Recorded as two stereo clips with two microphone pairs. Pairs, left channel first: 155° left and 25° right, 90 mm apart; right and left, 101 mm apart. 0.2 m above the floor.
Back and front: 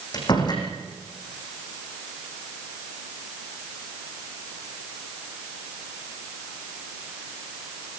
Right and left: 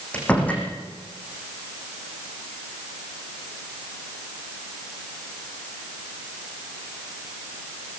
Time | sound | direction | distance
0.1 | a door slam | 165° right | 6.5 m